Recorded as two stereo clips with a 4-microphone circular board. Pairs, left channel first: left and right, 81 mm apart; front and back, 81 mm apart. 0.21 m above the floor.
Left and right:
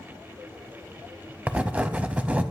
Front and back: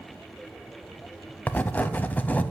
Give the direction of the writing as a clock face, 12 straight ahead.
1 o'clock.